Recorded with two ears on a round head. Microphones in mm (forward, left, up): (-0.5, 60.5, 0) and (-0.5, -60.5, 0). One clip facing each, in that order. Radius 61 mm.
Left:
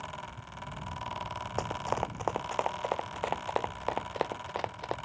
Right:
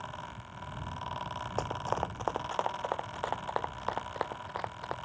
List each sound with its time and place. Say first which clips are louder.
1.6 s running footsteps: left 1 dB; centre (ahead or behind); by 5.0 s 25° left (ahead or behind)